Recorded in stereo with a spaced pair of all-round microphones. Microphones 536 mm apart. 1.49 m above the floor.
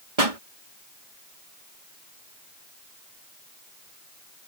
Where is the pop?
85° right.